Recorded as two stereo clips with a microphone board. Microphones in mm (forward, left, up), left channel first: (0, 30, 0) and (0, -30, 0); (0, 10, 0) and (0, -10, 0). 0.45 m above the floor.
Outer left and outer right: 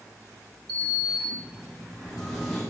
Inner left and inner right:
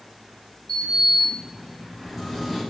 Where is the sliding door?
5° left (ahead or behind), 1.3 m.